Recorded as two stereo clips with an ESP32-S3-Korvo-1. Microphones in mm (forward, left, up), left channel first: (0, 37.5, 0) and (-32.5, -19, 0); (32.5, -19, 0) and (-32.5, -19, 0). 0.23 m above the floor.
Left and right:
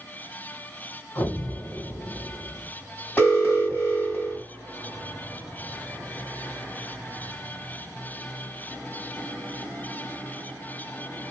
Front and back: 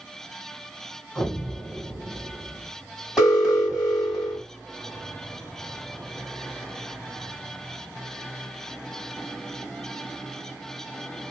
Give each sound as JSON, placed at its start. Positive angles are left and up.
{"t": 1.1, "sound": "an explosion", "azimuth_deg": 60, "distance_m": 1.9}
{"t": 3.2, "sound": "an alarm", "azimuth_deg": 90, "distance_m": 2.5}